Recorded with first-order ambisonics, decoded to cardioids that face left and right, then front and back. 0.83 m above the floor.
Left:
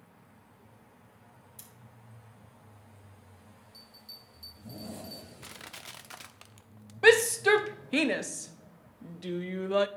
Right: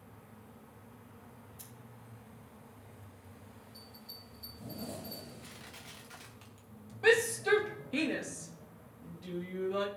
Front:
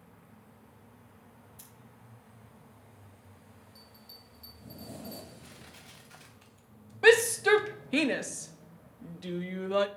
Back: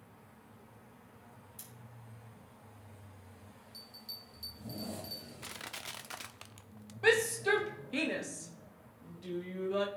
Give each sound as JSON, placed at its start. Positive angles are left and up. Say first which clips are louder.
{"t": 1.6, "sound": "scissors", "louder": "left 2 dB, back 2 dB", "azimuth_deg": 120, "distance_m": 3.0}
{"t": 3.7, "sound": "a bell", "louder": "left 2 dB, back 7 dB", "azimuth_deg": 160, "distance_m": 2.5}
{"t": 5.4, "sound": "crushing", "louder": "left 5 dB, back 8 dB", "azimuth_deg": 150, "distance_m": 0.6}
{"t": 7.0, "sound": "a shout", "louder": "left 6 dB, front 7 dB", "azimuth_deg": 50, "distance_m": 0.6}